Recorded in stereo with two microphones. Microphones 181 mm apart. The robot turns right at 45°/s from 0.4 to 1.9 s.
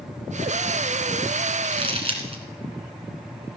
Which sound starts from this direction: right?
Crumpling, at 1.6 s.